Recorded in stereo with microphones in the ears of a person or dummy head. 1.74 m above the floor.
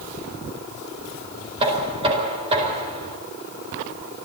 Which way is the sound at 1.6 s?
25° right (ahead or behind).